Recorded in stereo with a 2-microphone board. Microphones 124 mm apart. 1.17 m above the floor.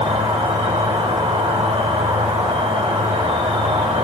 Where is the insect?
55° right (ahead or behind), 1.3 m.